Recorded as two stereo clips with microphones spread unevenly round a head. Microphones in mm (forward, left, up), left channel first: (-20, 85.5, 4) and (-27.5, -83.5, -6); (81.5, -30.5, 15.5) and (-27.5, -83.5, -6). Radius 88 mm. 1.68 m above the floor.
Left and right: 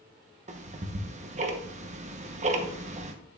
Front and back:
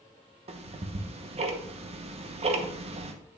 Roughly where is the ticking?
Behind right.